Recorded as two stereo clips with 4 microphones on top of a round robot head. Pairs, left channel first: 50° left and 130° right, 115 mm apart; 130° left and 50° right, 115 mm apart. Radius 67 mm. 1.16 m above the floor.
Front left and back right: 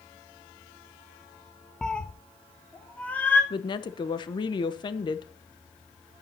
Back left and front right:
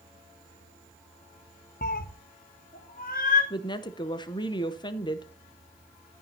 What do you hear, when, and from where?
1.8 s a cat meowing: 135° left, 0.5 m; by 3.4 s 130° left, 2 m
3.5 s a woman speaking: 90° left, 0.8 m